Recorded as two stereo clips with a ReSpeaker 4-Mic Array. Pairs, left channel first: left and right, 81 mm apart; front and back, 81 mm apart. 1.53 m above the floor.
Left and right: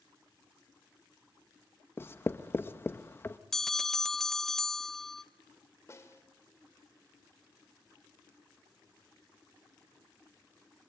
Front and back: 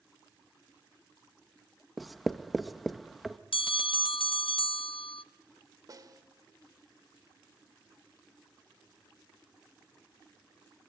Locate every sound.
2.0 s writing: 90° left, 0.8 m
3.5 s a bell: 5° left, 0.6 m
5.9 s a snare drum: 140° left, 2.5 m